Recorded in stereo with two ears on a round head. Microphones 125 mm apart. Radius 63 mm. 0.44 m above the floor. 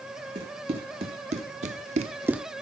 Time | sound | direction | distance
0.3 | running footsteps | 40° right (ahead or behind) | 2.5 m